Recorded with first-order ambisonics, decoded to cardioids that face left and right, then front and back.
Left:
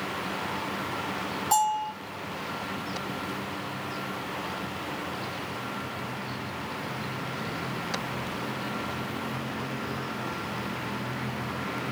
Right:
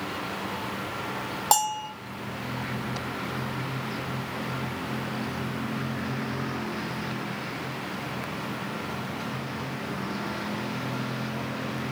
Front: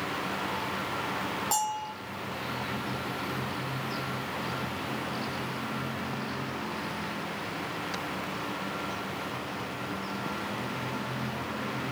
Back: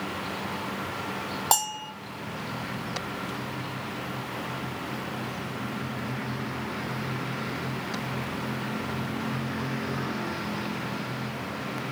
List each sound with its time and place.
1.5 s a bell: 130° right, 0.9 m